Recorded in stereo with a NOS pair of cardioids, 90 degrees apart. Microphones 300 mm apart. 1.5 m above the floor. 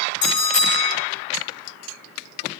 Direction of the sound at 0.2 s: 65° left.